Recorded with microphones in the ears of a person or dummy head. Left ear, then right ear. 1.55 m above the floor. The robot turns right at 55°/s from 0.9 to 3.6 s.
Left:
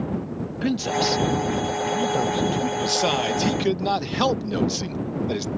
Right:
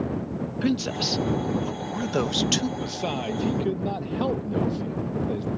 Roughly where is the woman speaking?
Behind.